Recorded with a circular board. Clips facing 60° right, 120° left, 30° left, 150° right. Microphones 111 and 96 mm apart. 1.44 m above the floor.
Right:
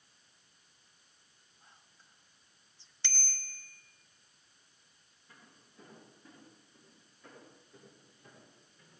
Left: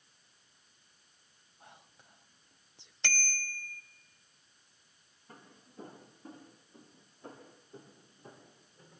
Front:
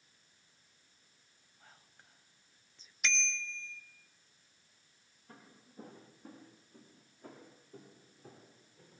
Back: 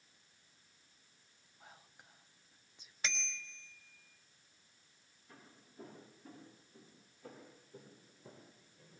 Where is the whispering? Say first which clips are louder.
Left 8 dB, back 3 dB; 135° left, 0.7 m.